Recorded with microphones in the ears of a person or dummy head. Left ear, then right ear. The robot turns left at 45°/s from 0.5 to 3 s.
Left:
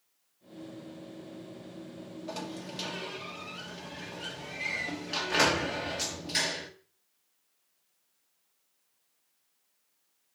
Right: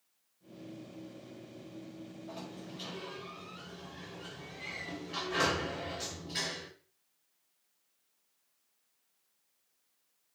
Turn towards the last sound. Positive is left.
turn(degrees=40)